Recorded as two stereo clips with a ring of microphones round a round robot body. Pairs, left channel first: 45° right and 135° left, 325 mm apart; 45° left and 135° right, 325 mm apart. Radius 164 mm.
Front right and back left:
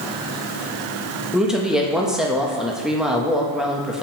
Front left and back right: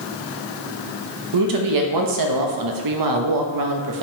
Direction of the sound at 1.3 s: 135° right.